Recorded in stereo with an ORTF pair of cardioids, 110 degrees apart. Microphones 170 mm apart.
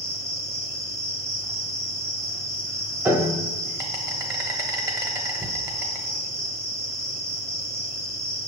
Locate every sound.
0.0 s an insect: 15° right, 0.9 m
3.0 s a piano: 20° right, 0.9 m
5.4 s a cupboard door: 20° right, 1.0 m